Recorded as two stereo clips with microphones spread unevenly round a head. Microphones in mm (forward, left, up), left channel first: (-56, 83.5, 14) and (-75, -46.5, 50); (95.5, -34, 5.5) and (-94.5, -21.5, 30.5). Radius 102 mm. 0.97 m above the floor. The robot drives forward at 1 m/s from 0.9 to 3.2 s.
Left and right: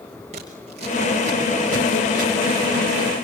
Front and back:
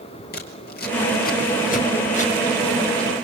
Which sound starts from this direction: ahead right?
Scissors, at 0.3 s.